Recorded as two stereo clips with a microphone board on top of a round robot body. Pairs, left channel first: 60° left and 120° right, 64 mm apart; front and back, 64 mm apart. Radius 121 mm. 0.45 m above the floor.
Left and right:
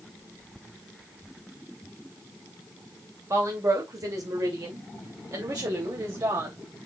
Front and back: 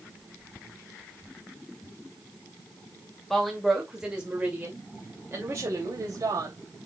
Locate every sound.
3.3 s a woman speaking: 85° right, 2.5 m; by 6.6 s 150° right, 3 m